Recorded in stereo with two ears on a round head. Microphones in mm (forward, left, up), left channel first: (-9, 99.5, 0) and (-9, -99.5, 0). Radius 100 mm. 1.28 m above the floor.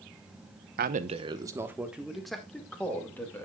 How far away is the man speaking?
About 0.9 m.